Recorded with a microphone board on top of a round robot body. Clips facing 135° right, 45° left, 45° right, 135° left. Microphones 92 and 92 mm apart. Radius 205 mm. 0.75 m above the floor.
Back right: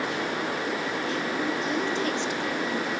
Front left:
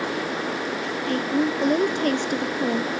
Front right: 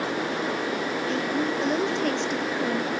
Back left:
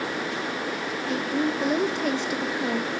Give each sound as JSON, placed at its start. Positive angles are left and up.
{"t": 1.1, "sound": "a woman speaking", "azimuth_deg": 50, "distance_m": 1.4}